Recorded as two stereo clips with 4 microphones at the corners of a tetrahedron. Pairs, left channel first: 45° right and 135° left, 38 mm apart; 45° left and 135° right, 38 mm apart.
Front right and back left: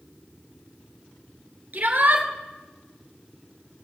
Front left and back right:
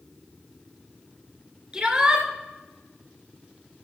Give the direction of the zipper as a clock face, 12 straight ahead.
I don't hear a zipper.